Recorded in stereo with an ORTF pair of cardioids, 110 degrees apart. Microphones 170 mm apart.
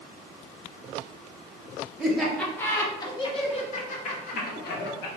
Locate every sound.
2.0 s laughter: 5° right, 1.3 m; by 5.1 s 65° left, 1.8 m